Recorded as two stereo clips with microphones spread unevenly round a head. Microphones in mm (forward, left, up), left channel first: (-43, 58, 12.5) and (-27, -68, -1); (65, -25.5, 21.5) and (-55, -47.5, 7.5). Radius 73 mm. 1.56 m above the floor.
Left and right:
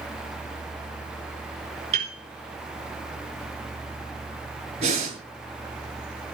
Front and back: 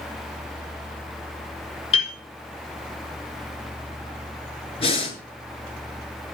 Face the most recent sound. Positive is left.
turn(degrees=-30)